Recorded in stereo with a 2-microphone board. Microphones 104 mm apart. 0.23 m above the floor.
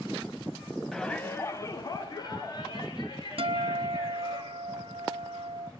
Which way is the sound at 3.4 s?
60° right (ahead or behind).